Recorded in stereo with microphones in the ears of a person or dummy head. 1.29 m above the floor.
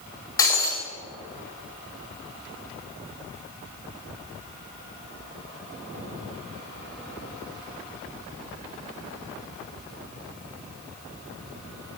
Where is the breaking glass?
15° left (ahead or behind), 1.2 m.